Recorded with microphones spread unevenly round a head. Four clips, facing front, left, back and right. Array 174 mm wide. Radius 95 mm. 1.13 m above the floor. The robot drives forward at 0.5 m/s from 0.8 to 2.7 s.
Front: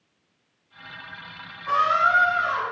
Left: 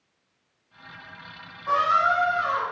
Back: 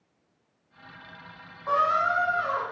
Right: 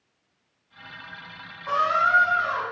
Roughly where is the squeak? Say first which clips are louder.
Even, front 3 dB; behind.